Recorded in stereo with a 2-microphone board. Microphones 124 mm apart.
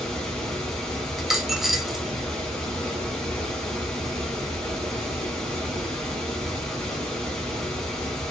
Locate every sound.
0.0 s running water: 5° left (ahead or behind), 1.3 m
1.2 s a dropped coin: 5° right (ahead or behind), 0.5 m